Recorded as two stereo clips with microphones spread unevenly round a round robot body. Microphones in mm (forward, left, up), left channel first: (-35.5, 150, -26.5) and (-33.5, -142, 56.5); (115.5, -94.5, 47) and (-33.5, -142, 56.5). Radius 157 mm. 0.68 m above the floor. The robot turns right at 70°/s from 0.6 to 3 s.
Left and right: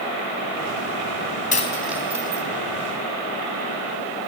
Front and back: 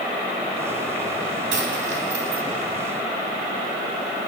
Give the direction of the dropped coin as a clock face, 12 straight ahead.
7 o'clock.